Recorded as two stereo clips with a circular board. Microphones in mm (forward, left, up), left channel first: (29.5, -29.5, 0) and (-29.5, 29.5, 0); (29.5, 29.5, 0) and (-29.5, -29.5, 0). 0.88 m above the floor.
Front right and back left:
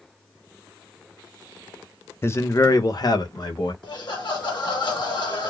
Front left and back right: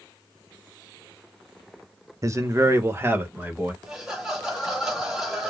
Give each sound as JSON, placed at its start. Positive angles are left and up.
{"t": 2.2, "sound": "a man speaking", "azimuth_deg": -100, "distance_m": 0.6}
{"t": 3.8, "sound": "laughter", "azimuth_deg": -50, "distance_m": 1.7}